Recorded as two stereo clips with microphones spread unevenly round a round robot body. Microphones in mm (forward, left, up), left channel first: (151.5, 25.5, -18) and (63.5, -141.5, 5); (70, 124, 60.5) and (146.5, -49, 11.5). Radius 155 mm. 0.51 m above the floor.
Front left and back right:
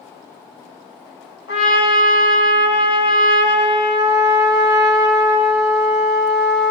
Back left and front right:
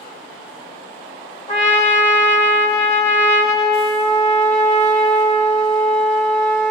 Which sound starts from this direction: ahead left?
A trumpet, at 1.5 s.